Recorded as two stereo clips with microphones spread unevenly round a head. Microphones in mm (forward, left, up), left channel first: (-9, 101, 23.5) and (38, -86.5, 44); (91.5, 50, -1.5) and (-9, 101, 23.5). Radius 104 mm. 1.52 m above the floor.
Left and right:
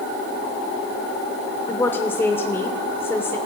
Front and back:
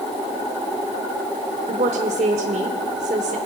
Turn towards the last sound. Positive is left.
turn(degrees=-175)